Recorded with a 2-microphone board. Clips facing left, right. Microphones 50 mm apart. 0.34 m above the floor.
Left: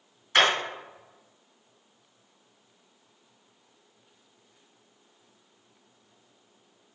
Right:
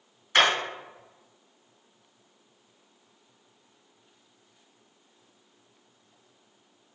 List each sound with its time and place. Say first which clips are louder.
0.3 s hammering: even; 10° right (ahead or behind), 1.5 m